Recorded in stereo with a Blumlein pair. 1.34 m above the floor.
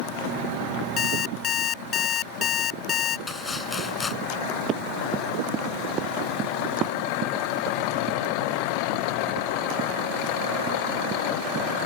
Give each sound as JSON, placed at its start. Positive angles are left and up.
{"t": 1.0, "sound": "an alarm clock", "azimuth_deg": 30}
{"t": 3.3, "sound": "chopping", "azimuth_deg": 15}
{"t": 4.7, "sound": "running footsteps", "azimuth_deg": -30}